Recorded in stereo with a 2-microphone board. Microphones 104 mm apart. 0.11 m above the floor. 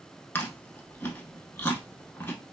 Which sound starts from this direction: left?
Chewing, at 0.3 s.